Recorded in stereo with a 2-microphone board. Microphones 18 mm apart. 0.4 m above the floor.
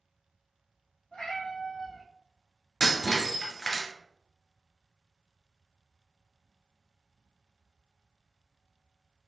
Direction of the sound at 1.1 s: 70° left (ahead or behind).